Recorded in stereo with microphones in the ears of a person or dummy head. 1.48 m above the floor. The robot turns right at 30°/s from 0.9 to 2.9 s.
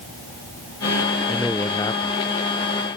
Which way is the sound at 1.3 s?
Centre (ahead or behind).